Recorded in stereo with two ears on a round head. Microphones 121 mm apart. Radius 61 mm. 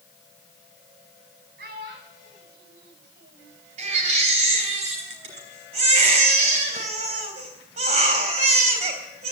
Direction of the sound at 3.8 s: 55° right (ahead or behind).